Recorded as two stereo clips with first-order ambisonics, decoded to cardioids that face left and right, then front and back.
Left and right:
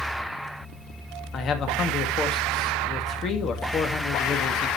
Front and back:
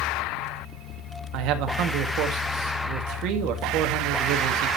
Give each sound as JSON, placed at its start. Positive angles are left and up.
{"t": 1.3, "sound": "a man speaking", "azimuth_deg": 150, "distance_m": 1.7}